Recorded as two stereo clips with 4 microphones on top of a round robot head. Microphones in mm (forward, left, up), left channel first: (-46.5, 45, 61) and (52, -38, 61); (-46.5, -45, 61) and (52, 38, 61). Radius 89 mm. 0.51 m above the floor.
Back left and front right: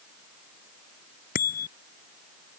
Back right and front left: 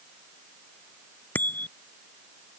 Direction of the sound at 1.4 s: 145° left.